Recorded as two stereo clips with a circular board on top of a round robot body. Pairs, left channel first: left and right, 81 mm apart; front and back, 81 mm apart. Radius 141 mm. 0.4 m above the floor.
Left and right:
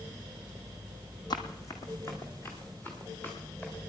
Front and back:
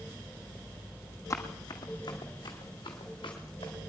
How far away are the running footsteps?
About 1.2 m.